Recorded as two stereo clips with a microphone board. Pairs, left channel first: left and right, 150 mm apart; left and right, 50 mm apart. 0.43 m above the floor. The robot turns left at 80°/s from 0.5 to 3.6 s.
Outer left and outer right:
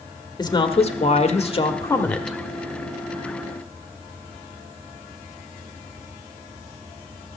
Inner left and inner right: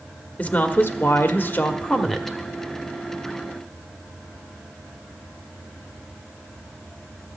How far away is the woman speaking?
About 1.2 m.